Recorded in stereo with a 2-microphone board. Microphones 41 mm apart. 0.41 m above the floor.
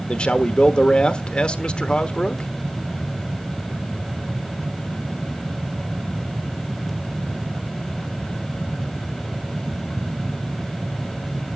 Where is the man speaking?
25° left (ahead or behind), 1.1 m.